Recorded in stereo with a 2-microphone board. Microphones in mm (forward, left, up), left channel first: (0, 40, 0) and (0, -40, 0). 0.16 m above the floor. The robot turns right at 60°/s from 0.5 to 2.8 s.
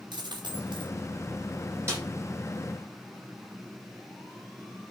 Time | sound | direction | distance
0.1 | a dropped coin | 70° right (ahead or behind) | 2.5 m
1.9 | a snare drum | 30° right (ahead or behind) | 7.5 m